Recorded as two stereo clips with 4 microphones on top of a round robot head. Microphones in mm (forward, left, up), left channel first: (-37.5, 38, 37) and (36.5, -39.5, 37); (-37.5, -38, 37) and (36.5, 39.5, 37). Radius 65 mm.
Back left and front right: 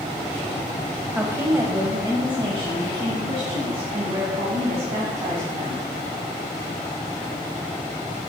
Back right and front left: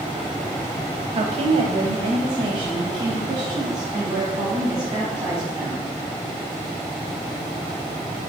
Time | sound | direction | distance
1.1 | a woman speaking | 25° left | 0.9 m